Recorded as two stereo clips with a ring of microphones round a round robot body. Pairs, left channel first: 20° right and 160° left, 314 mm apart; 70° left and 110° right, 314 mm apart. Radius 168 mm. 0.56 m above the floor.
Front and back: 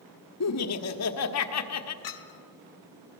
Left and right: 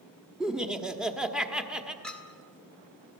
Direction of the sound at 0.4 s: 25° right.